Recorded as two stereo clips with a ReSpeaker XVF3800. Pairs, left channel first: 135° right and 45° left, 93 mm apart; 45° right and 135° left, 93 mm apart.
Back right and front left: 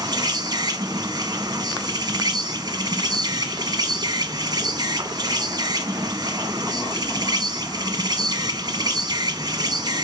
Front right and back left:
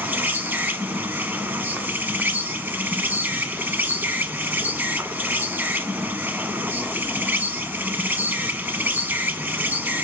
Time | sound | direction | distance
0.0 | an insect | 75° left | 0.8 m